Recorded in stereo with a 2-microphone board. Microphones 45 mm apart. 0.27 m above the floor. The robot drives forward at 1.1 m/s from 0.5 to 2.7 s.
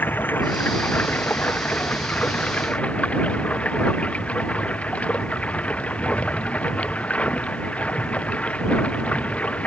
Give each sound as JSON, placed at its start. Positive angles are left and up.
{"t": 0.0, "sound": "running water", "side_deg": 45}